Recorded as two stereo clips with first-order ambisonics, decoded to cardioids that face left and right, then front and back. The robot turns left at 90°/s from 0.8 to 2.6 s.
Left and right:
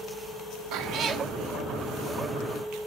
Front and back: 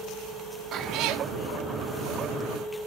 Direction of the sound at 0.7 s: 120° right.